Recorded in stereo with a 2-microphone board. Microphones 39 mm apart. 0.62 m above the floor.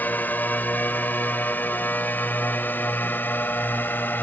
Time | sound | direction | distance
0.0 | a drone | 50° left (ahead or behind) | ?